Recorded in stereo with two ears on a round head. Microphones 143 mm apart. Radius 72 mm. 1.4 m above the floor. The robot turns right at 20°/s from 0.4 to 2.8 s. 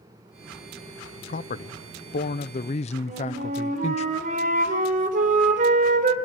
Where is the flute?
55° right (ahead or behind), 3.5 m.